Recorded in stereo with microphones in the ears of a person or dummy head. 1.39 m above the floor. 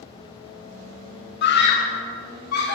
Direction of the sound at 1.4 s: 55° left (ahead or behind).